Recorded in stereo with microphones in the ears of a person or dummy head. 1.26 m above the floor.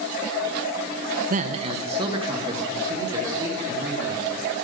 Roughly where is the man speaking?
Right.